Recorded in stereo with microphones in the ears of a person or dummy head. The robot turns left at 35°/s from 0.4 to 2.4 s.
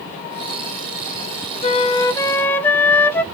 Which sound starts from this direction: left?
A flute, at 1.6 s.